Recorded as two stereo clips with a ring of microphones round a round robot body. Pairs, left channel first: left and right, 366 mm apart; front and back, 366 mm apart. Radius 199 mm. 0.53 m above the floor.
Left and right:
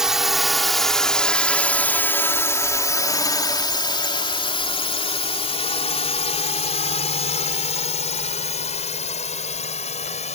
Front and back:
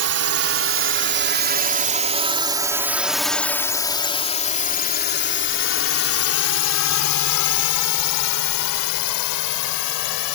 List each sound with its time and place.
0.0 s a drone: straight behind; by 10.4 s 20° left